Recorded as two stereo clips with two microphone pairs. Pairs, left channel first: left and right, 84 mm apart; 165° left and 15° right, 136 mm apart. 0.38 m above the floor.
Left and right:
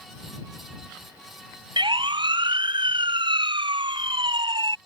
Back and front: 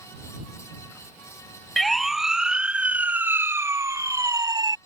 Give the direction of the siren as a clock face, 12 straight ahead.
4 o'clock.